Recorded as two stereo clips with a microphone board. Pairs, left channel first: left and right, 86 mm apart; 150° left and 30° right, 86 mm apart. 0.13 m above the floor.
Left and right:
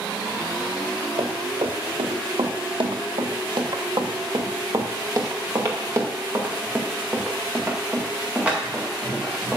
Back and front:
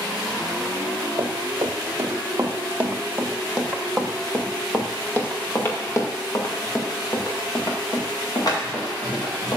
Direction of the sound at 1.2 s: 85° right.